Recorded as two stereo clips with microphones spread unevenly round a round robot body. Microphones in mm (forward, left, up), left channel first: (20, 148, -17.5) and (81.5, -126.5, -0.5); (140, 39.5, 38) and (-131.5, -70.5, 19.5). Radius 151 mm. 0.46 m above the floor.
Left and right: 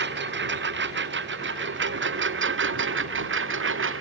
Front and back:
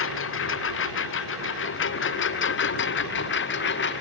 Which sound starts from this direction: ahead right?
A lawn mower, at 0.0 s.